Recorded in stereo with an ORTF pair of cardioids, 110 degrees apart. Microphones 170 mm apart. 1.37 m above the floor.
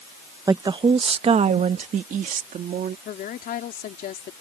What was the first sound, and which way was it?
A woman speaking, 20° right.